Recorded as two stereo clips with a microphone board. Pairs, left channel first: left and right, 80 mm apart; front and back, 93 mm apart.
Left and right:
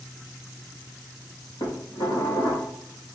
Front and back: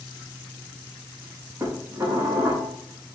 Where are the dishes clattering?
120° left, 7 m.